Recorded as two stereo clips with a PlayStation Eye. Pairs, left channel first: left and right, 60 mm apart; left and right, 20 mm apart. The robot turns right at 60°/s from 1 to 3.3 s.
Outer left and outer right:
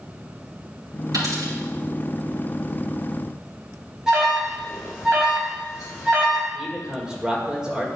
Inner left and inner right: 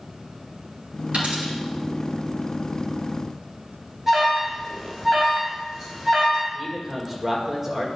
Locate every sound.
1.1 s a dropped coin: 80° right, 3.5 m; by 1.5 s 70° right (ahead or behind), 3.5 m
4.1 s an alarm: 5° right (ahead or behind), 2 m
6.5 s a man speaking: 10° right (ahead or behind), 1.6 m